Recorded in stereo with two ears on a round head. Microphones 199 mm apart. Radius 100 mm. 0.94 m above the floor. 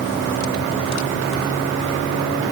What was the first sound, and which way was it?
Only background noise.